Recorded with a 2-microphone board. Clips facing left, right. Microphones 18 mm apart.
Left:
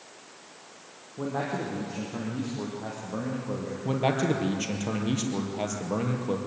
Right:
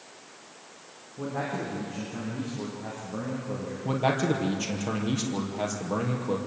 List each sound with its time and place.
1.2 s a man speaking: 40° left (ahead or behind), 6.5 m
3.9 s a man speaking: 5° left (ahead or behind), 3.5 m